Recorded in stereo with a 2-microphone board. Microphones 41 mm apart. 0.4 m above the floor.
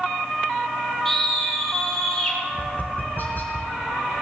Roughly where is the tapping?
Left.